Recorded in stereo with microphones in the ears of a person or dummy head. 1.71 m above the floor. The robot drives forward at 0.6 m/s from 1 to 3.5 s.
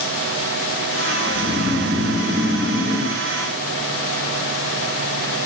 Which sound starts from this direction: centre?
Snoring, at 1.3 s.